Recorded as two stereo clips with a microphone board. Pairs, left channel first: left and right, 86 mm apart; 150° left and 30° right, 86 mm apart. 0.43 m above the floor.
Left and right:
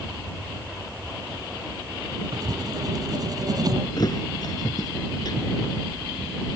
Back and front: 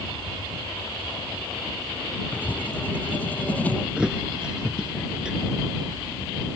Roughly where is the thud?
Ahead left.